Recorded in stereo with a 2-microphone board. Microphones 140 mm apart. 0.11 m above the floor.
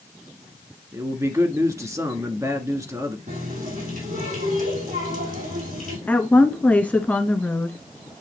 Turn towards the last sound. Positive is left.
turn(degrees=10)  # may be behind; listen again after turning